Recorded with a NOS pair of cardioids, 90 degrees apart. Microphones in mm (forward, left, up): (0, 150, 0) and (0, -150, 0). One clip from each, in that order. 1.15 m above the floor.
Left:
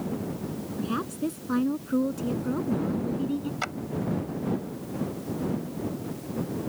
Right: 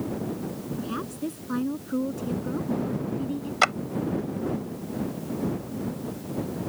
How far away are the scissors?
No scissors in this recording.